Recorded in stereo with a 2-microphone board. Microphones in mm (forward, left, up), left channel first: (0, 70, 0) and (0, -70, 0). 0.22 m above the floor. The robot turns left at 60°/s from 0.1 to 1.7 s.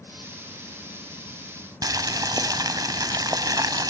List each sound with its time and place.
1.8 s boiling: 30° right (ahead or behind), 0.7 m